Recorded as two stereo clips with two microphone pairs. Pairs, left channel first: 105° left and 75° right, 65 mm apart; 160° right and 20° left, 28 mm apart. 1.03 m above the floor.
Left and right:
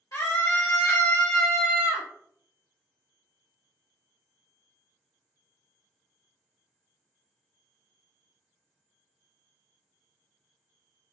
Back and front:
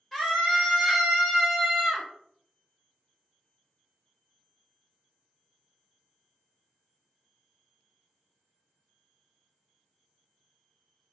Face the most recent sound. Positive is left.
turn(degrees=-70)